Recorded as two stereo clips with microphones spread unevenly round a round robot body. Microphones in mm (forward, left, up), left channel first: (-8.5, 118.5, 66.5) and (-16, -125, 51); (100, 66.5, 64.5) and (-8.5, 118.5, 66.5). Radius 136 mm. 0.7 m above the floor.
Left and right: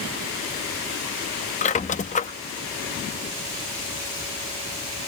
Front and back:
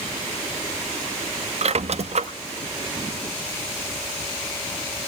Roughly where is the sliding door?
No sliding door in this recording.